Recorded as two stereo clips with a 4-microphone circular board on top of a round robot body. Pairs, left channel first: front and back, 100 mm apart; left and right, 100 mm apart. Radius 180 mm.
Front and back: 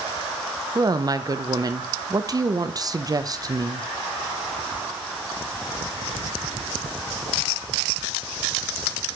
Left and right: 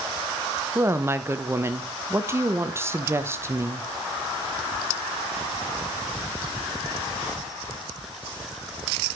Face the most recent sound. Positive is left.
turn(degrees=-145)